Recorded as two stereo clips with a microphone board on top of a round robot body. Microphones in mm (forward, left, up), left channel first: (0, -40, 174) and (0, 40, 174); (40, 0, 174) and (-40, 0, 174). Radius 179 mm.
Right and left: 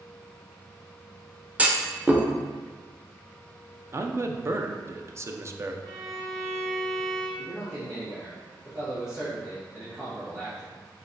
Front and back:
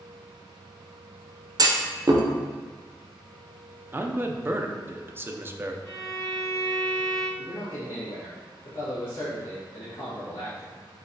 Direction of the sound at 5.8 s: 45° left.